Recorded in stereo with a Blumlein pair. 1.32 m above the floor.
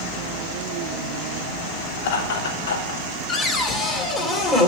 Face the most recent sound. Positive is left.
turn(degrees=15)